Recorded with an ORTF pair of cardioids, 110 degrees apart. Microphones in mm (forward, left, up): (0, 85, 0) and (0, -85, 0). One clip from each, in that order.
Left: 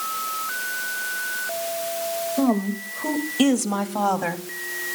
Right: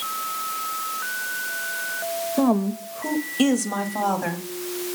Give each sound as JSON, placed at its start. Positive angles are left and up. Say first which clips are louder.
{"t": 2.4, "sound": "a woman speaking", "louder": "right 3 dB", "azimuth_deg": -30, "distance_m": 1.9}